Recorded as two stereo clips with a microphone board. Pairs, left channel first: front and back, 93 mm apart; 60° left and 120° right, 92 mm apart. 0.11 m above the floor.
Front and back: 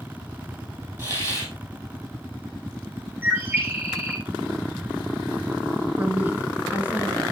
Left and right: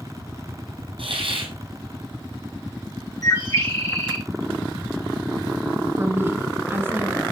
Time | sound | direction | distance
1.0 | a hiss | 120° right | 3.5 m
3.2 | a bird | 110° left | 4 m
6.0 | a woman speaking | 135° right | 1.2 m